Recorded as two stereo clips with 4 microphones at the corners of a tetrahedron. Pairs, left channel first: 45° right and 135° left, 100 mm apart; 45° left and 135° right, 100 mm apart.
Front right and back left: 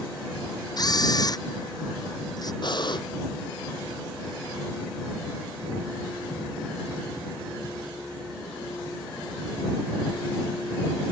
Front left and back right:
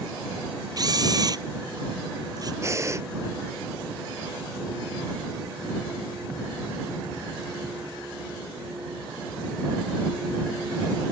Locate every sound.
0.8 s a camera shutter: 90° right
2.6 s breathing: 75° right